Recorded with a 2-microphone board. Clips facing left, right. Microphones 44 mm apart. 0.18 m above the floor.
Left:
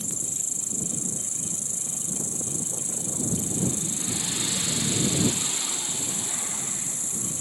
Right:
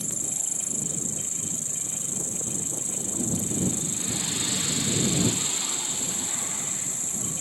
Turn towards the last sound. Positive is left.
turn(degrees=-35)  # may be behind; listen again after turning